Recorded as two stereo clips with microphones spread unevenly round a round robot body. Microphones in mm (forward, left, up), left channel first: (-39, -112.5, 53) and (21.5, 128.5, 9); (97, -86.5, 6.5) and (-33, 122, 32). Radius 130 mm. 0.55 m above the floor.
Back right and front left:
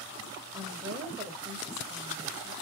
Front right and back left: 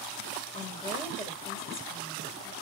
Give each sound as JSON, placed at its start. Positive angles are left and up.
{"t": 0.5, "sound": "a woman speaking", "azimuth_deg": 5, "distance_m": 3.0}